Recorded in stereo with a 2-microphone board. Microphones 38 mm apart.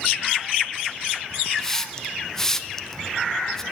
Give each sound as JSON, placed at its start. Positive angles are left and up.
{"t": 1.6, "sound": "a hiss", "side_deg": 10, "distance_m": 0.5}